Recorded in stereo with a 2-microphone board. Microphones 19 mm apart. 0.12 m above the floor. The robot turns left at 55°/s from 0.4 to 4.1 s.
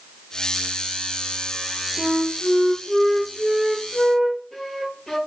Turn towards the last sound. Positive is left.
turn(degrees=145)